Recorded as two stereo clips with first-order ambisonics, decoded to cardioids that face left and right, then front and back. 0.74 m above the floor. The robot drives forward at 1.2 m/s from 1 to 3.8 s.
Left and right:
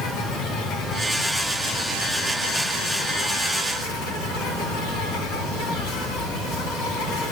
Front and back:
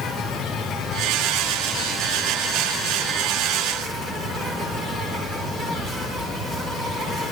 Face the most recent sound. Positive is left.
turn(degrees=120)